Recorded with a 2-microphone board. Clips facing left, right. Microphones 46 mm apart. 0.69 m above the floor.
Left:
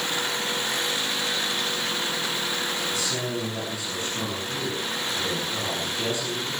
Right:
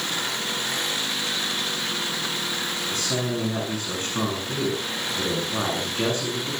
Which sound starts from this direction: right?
A man speaking, at 2.9 s.